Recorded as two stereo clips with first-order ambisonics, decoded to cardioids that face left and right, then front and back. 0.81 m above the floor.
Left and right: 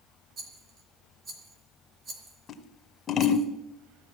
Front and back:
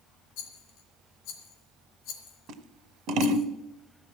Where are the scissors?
150° left, 1.1 m.